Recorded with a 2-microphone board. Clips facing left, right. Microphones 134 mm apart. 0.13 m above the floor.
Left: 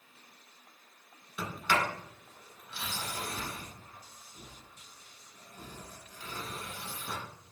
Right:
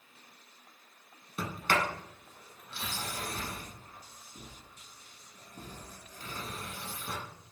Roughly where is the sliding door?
Right.